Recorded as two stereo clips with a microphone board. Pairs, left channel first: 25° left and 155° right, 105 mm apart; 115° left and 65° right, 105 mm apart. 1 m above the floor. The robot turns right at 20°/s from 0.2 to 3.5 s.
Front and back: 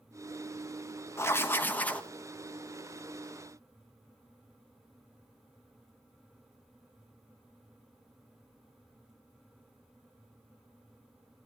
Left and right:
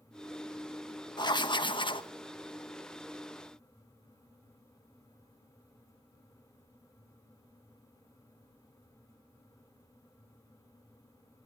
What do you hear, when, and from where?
1.2 s writing: 80° left, 1.0 m; by 2.1 s 100° left, 1.0 m